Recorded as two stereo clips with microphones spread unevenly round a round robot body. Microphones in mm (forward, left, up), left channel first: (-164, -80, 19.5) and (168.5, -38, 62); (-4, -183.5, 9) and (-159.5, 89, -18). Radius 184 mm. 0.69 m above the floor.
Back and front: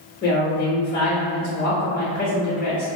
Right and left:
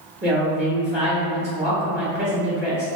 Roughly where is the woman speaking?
Behind left.